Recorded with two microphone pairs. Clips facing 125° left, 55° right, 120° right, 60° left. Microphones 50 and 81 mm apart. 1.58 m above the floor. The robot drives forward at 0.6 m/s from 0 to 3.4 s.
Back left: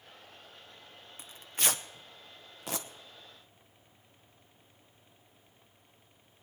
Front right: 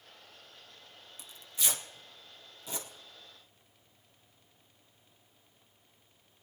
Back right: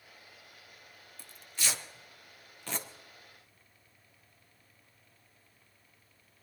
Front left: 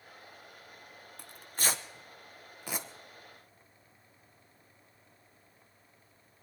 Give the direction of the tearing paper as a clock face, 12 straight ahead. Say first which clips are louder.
Back left 4 dB, front left 3 dB; 9 o'clock.